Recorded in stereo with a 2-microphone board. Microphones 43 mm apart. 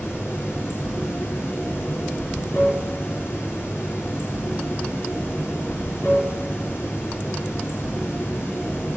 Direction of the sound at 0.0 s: 60° left (ahead or behind).